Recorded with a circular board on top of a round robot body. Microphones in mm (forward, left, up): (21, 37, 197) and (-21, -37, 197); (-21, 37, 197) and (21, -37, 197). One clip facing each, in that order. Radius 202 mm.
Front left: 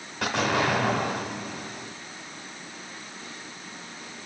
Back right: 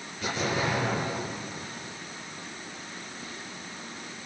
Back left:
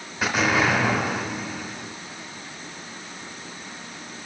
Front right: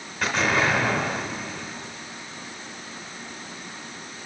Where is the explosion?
35° left, 1.6 m.